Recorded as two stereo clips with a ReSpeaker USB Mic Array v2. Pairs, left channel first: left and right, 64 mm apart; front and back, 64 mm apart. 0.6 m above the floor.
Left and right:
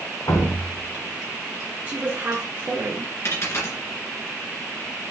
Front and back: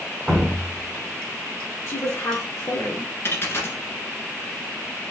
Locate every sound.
0.3 s dripping: 85° left, 3 m
1.9 s a woman speaking: 35° right, 1.3 m
3.2 s a dropped coin: 50° left, 1.7 m